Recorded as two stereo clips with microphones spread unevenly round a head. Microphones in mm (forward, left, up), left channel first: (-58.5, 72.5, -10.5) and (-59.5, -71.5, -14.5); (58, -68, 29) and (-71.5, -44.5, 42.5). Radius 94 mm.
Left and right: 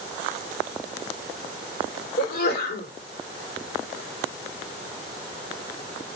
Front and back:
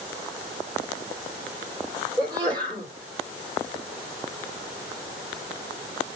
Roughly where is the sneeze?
Left.